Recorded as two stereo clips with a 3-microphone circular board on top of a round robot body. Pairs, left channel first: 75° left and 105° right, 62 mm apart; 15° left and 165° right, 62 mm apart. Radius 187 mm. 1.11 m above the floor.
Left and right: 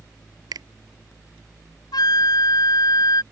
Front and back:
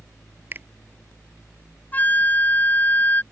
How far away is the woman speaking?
No woman speaking in this recording.